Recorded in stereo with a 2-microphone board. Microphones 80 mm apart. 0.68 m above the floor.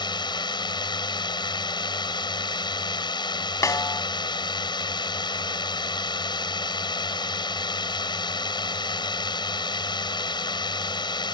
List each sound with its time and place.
0.0 s a drone: 70° left (ahead or behind)
3.6 s a snare drum: 45° left (ahead or behind)